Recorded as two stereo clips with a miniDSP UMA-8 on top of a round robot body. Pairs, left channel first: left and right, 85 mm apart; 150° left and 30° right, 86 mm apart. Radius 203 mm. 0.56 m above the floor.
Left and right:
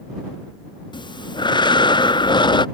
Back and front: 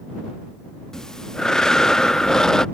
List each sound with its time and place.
0.9 s breathing: 65° left